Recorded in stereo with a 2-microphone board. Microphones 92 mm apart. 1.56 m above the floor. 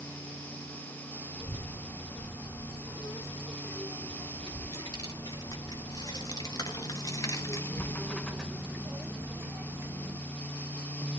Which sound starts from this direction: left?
A child speaking, at 1.4 s.